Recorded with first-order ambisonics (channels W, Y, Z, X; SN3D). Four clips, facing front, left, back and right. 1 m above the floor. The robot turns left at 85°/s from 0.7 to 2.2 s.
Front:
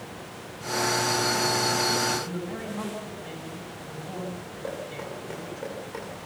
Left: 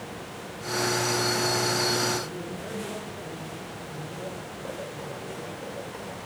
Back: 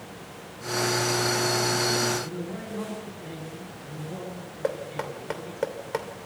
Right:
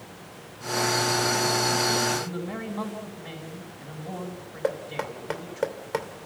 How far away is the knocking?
About 2.5 m.